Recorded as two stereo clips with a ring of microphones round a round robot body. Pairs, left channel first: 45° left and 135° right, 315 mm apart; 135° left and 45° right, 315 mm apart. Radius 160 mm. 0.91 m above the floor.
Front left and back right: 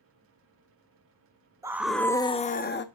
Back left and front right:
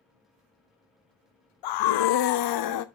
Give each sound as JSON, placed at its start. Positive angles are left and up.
{"t": 1.6, "sound": "a scream", "azimuth_deg": 145, "distance_m": 0.8}